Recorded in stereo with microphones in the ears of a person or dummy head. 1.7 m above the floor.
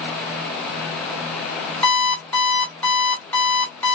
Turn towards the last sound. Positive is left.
turn(degrees=10)  # may be behind; listen again after turning